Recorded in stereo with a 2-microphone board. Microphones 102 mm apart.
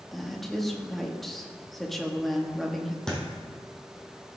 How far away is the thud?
About 2.5 m.